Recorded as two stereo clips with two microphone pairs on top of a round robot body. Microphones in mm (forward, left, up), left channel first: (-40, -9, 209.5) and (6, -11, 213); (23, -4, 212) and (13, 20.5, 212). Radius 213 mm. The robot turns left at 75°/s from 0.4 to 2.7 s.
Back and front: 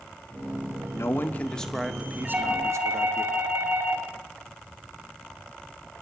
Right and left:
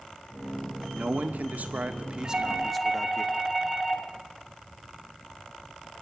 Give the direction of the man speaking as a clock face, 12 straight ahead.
7 o'clock.